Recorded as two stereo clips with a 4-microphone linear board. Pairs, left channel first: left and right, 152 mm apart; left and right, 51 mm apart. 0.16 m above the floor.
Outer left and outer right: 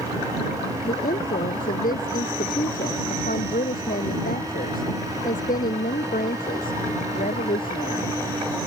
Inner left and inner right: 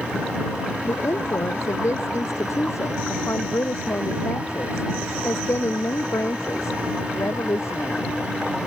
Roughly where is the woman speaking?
Left.